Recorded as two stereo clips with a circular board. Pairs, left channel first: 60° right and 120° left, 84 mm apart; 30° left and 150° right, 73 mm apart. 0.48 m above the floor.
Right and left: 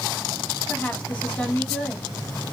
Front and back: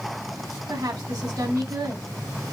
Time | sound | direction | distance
0.7 | a woman speaking | 125° right | 2.5 m